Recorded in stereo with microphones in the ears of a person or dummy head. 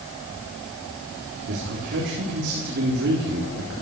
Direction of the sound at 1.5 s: 60° right (ahead or behind).